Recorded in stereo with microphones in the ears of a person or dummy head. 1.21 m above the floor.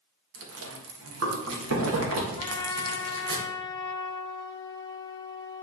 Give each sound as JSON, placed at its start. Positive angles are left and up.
{"t": 0.3, "sound": "chewing", "side_deg": -70, "distance_m": 1.8}
{"t": 2.4, "sound": "a trumpet", "side_deg": 20, "distance_m": 0.5}